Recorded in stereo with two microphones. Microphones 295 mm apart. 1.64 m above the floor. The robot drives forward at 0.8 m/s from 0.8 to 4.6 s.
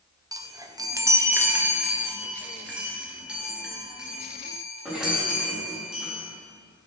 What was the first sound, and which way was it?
A chime, 15° right (ahead or behind).